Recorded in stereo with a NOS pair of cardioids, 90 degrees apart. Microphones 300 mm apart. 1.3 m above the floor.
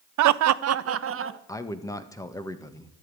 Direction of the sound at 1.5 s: 10° left.